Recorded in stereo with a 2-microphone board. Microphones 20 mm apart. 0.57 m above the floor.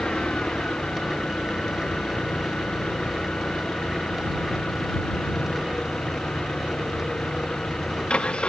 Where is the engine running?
55° left (ahead or behind).